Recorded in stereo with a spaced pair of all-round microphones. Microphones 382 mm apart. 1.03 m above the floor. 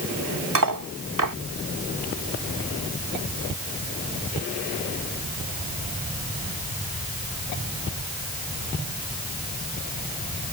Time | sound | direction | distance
0.6 | cutlery clinking | 55° right (ahead or behind) | ?